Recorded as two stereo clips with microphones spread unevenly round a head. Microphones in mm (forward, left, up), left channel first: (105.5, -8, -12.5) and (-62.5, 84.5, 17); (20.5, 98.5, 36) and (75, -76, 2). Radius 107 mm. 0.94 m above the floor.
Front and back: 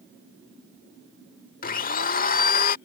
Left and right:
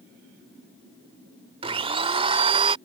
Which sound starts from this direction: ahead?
A blender, at 1.6 s.